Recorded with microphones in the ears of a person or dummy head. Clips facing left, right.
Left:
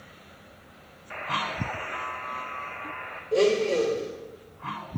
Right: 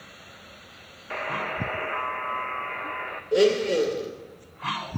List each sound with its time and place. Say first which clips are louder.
1.1 s a buzzer: right 3 dB; 60° right (ahead or behind), 0.9 m
3.3 s a blender: right 2 dB; 20° right (ahead or behind), 2 m